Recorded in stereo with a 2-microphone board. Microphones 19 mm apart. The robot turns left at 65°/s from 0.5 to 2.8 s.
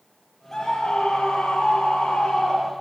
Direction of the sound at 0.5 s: 155° left.